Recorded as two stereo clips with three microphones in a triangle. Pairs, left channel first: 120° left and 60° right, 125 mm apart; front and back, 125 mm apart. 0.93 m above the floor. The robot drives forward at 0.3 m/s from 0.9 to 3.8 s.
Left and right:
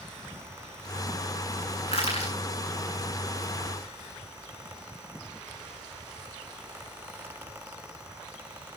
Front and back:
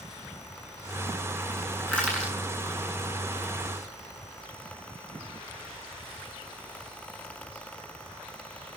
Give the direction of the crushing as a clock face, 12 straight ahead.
9 o'clock.